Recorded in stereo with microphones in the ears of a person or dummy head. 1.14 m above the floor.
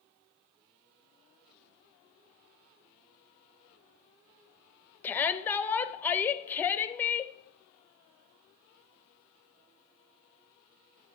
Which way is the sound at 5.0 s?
10° left (ahead or behind).